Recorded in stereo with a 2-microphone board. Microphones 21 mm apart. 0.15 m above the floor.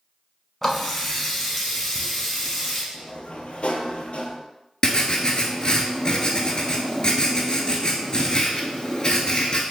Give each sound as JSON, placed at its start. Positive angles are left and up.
{"t": 0.6, "sound": "a running tap", "side_deg": 10, "distance_m": 0.7}
{"t": 2.9, "sound": "a sliding door", "side_deg": 65, "distance_m": 0.5}
{"t": 4.8, "sound": "writing", "side_deg": 35, "distance_m": 0.6}